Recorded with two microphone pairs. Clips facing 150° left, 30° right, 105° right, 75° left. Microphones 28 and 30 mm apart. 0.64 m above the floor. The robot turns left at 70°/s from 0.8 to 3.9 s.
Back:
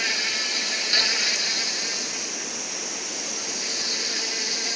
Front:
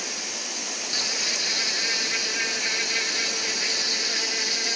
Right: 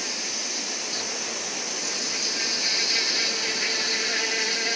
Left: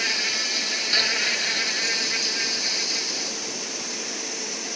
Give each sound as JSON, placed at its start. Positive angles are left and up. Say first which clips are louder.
{"t": 0.0, "sound": "an insect", "louder": "back 7 dB, left 7 dB", "azimuth_deg": 115}